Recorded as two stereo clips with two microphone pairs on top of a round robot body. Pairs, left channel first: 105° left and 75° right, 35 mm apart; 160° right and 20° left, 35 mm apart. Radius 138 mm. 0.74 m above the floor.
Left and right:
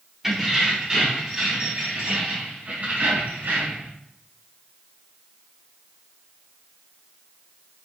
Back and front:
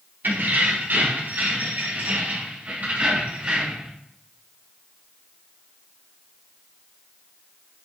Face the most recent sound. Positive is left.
turn(degrees=-40)